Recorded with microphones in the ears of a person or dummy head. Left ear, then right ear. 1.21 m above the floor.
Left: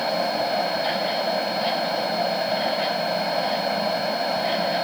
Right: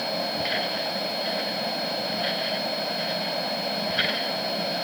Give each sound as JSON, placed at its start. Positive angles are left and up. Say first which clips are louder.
{"t": 0.0, "sound": "a fan", "louder": "left 4 dB", "side_deg": 40}